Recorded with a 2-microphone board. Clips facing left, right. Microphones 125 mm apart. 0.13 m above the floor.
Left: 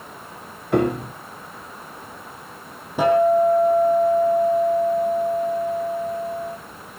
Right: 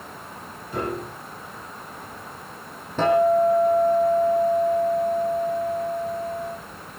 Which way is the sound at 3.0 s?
10° left (ahead or behind).